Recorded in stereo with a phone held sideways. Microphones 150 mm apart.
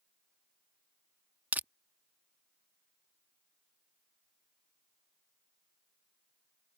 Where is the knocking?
I don't hear knocking.